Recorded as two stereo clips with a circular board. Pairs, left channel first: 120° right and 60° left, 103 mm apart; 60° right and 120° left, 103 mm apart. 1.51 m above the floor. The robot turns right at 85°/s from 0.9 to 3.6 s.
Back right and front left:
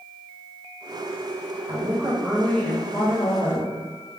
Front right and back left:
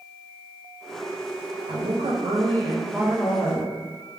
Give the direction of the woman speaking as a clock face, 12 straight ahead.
9 o'clock.